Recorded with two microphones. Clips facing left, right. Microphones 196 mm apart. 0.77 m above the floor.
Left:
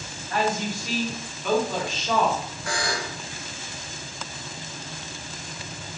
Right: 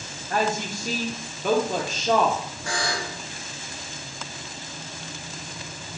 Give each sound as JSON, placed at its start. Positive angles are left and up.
{"t": 0.3, "sound": "a woman speaking", "side_deg": -40, "distance_m": 0.7}
{"t": 2.7, "sound": "a buzzer", "side_deg": -25, "distance_m": 1.0}